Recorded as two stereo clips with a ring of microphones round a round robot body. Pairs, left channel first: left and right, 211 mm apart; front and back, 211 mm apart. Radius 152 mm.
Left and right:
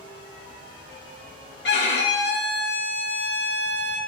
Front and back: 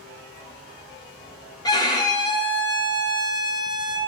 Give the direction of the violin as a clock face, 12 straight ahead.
10 o'clock.